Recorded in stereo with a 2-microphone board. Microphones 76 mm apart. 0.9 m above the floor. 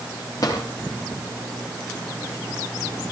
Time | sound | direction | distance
0.4 | a drawer | 50° left (ahead or behind) | 7.5 m